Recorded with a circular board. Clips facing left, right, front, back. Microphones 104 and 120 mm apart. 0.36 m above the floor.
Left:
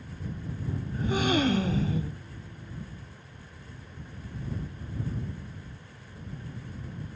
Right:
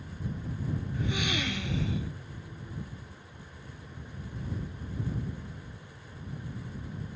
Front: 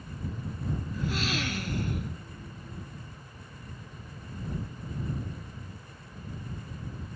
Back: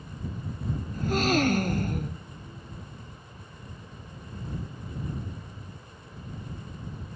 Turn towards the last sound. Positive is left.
turn(degrees=140)